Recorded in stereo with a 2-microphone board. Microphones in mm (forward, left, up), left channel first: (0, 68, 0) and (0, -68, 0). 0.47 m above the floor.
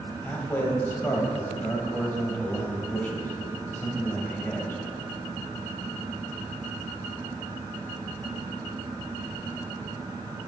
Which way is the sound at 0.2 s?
15° left (ahead or behind).